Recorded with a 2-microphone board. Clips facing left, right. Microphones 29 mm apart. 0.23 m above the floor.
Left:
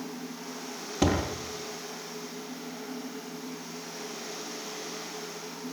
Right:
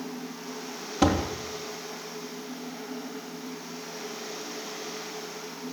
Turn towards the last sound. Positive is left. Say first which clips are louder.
# right 3 dB
turn(degrees=-5)  # may be behind; listen again after turning